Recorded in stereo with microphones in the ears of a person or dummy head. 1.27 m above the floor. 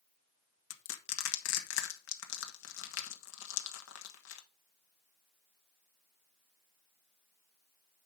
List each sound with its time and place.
0.7 s crushing: 70° left (ahead or behind), 1.3 m